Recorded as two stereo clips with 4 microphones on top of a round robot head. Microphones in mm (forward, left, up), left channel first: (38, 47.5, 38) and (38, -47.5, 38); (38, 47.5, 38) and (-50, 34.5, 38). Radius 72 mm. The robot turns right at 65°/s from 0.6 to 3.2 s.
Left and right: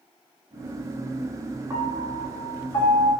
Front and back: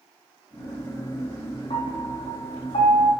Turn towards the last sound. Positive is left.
turn(degrees=65)